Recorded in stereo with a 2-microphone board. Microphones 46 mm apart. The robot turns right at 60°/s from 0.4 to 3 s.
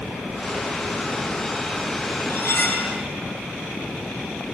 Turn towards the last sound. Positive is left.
turn(degrees=155)